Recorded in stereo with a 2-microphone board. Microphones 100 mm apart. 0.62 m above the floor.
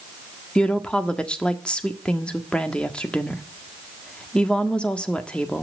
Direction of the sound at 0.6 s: 10° left (ahead or behind).